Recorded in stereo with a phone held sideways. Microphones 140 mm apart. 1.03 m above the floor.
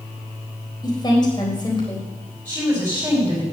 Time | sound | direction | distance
0.8 | a woman speaking | 30° left (ahead or behind) | 4 m
2.5 | a woman speaking | 15° right (ahead or behind) | 5 m